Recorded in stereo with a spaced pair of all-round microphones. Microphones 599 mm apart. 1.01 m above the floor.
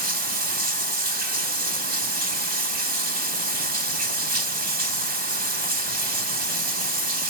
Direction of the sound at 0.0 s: 85° right.